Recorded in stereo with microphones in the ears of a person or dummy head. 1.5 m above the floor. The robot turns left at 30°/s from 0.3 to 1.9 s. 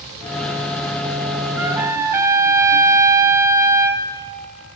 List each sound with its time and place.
1.6 s a trumpet: 5° right (ahead or behind), 0.6 m; by 4.1 s 15° right (ahead or behind), 0.6 m